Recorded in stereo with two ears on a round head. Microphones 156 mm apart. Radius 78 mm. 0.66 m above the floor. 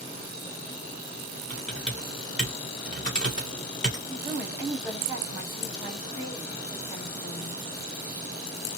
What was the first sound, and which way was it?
Typing on a keyboard, 5° left (ahead or behind).